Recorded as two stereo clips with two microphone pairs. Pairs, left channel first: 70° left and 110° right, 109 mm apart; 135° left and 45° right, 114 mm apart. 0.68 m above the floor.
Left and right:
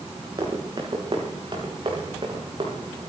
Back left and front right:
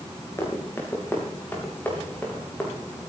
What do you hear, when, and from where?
0.4 s running footsteps: 160° right, 5 m; by 3.0 s 150° right, 6 m